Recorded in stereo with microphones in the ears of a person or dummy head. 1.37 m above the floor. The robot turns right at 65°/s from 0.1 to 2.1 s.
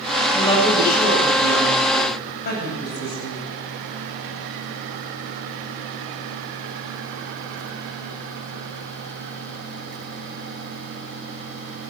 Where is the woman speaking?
10° left, 7.5 m; by 3.4 s 125° left, 7.5 m.